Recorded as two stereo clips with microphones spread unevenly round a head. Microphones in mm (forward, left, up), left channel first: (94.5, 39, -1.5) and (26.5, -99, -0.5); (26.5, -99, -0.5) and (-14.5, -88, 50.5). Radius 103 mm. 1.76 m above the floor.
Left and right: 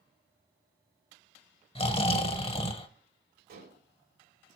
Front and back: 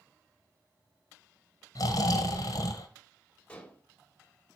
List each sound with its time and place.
1.8 s snoring: 15° left, 1.3 m
3.5 s dishes clattering: 105° right, 3 m